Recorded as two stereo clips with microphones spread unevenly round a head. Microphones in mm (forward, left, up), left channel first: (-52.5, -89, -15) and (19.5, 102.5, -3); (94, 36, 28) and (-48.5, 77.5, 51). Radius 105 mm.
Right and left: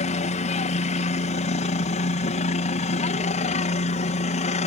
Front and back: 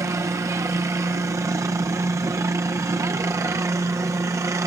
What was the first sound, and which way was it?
A helicopter, 130° right.